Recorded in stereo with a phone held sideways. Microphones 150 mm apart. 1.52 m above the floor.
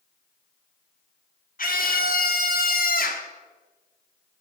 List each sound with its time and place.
1.6 s a scream: 70° left (ahead or behind), 1.6 m; by 3.3 s 65° left (ahead or behind), 1.2 m